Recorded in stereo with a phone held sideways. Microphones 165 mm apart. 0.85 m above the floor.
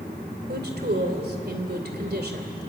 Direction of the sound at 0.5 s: 80° right.